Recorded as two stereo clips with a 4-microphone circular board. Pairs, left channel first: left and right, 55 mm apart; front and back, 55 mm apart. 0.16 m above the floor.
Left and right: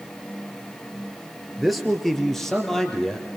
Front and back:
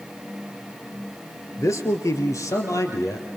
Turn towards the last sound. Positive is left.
turn(degrees=10)